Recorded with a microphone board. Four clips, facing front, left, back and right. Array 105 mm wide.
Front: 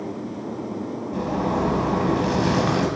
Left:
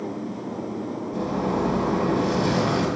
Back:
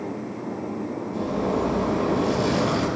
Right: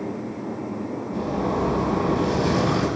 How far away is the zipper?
About 1.4 m.